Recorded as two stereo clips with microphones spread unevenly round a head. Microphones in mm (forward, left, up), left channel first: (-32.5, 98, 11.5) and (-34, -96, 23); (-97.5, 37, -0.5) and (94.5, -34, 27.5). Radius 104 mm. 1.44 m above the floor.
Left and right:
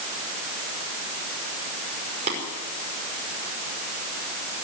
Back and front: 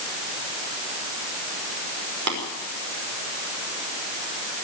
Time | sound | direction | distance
2.3 | tapping | 30° right | 5.5 m